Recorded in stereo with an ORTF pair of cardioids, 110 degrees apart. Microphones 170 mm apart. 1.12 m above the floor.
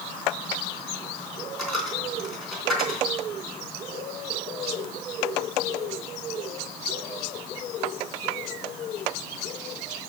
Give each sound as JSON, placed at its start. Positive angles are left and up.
{"t": 1.6, "sound": "a dropped coin", "azimuth_deg": 0, "distance_m": 3.0}